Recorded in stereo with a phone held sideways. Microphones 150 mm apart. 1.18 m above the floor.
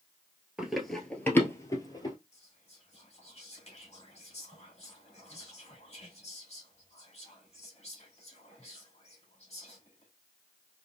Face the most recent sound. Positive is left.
turn(degrees=45)  # may be behind; listen again after turning